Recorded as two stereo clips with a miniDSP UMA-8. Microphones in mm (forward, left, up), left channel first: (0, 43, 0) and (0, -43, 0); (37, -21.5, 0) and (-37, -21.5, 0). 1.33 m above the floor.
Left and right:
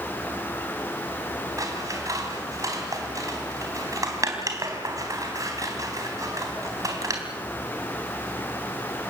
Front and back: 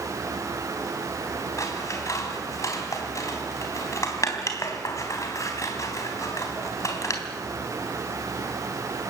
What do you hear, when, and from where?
1.6 s scissors: 45° right, 3.5 m